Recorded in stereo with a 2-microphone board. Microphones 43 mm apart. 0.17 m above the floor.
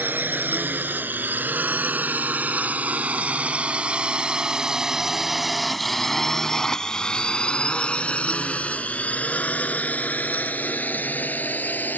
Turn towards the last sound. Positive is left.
turn(degrees=45)  # may be behind; listen again after turning